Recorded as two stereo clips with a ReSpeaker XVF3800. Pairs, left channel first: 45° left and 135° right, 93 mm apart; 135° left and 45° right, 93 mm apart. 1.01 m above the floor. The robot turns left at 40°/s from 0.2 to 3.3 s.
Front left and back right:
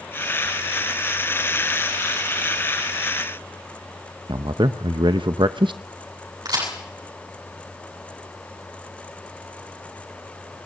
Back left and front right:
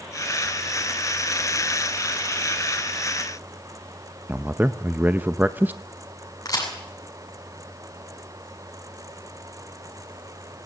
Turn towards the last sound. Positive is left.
turn(degrees=-175)